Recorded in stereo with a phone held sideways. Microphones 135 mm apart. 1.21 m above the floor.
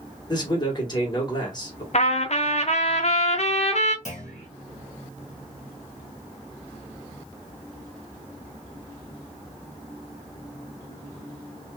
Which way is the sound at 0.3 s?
35° left (ahead or behind).